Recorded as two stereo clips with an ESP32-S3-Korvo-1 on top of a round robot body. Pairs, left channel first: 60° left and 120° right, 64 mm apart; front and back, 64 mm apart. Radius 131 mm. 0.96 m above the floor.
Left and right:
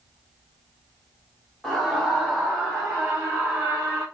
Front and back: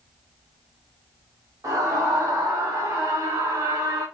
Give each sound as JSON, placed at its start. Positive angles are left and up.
{"t": 1.6, "sound": "a scream", "azimuth_deg": 155, "distance_m": 3.5}